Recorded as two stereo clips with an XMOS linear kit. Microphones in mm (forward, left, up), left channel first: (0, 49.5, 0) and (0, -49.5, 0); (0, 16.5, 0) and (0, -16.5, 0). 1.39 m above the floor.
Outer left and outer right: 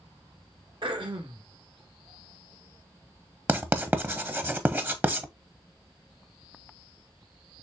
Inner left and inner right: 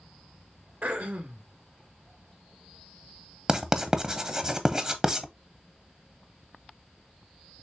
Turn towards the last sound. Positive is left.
turn(degrees=-20)  # may be behind; listen again after turning